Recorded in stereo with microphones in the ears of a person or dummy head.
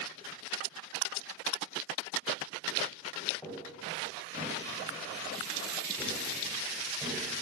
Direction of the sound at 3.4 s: 10° left (ahead or behind).